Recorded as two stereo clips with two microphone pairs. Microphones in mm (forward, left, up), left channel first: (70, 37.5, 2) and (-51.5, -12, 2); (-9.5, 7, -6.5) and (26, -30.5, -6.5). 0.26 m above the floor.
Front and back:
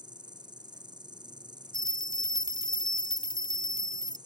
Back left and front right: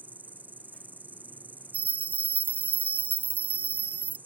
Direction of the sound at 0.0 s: 100° right.